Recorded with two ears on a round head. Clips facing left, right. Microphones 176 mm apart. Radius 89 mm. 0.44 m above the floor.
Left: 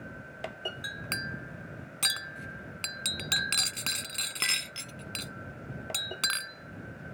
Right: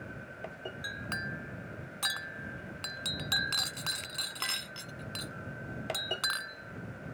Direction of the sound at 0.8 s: 35° left (ahead or behind).